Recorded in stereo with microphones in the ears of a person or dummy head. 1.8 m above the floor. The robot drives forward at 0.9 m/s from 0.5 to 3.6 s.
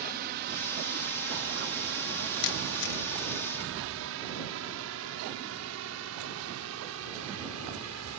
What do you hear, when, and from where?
0.0 s a drone: 55° right (ahead or behind); by 8.2 s 80° right
2.4 s a camera shutter: 60° left (ahead or behind)